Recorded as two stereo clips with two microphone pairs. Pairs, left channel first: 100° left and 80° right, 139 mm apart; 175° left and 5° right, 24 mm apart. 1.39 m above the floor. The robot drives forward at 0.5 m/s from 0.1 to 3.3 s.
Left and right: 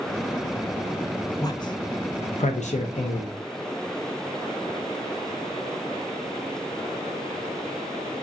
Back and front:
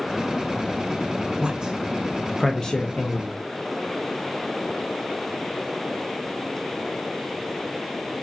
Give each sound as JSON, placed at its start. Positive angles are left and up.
{"t": 1.4, "sound": "a man speaking", "azimuth_deg": 40, "distance_m": 0.7}